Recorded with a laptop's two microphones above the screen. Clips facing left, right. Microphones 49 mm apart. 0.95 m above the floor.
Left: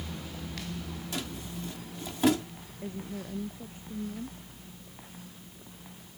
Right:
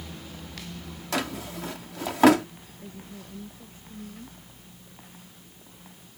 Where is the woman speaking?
25° left (ahead or behind).